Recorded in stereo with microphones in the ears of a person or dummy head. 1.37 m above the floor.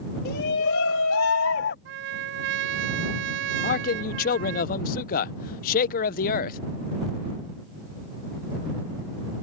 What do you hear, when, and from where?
0.2 s a shout: 60° left (ahead or behind); by 1.8 s 50° left (ahead or behind)
1.9 s a trumpet: 65° right (ahead or behind)
3.6 s a man speaking: 55° left (ahead or behind)